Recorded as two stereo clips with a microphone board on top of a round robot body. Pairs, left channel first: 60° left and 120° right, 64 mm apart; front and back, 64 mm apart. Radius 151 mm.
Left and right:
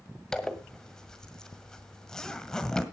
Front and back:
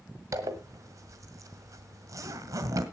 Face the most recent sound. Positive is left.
turn(degrees=140)